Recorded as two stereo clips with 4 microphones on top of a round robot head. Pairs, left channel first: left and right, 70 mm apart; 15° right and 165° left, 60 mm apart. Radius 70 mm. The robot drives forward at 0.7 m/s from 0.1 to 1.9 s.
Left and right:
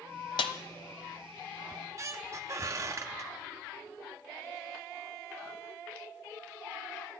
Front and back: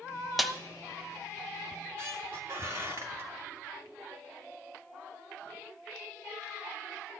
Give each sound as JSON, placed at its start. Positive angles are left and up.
{"t": 0.4, "sound": "a snare drum", "azimuth_deg": 75, "distance_m": 0.7}
{"t": 1.7, "sound": "a squeak", "azimuth_deg": -125, "distance_m": 0.6}